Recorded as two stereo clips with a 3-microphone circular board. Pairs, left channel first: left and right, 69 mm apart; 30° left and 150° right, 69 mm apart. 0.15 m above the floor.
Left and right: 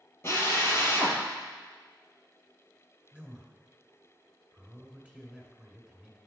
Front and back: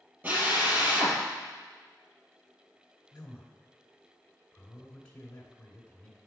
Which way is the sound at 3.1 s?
30° right.